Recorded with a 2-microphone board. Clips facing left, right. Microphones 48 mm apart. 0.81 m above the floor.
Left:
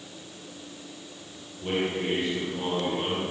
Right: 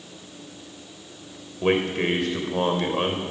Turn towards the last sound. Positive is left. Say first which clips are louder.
# right 6 dB
turn(degrees=-70)  # may be behind; listen again after turning